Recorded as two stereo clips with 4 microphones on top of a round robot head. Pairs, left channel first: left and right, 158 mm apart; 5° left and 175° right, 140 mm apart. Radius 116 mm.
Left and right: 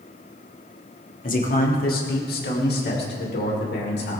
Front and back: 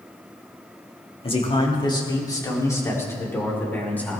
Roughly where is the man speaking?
Ahead left.